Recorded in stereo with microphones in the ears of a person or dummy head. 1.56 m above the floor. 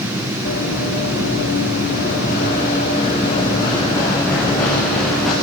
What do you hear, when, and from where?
0.5 s running footsteps: 70° left (ahead or behind), 6 m; by 5.3 s centre (ahead or behind), 6 m